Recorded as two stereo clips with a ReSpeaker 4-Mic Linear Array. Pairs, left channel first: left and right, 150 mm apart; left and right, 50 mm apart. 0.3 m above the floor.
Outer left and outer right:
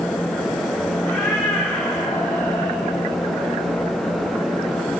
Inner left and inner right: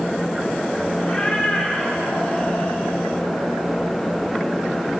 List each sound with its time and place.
1.0 s a cat meowing: 20° left (ahead or behind), 8 m